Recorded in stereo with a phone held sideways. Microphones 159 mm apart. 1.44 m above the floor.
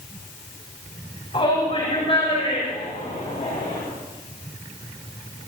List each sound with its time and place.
1.3 s a shout: 40° left (ahead or behind), 5.5 m; by 3.8 s 55° left (ahead or behind), 7 m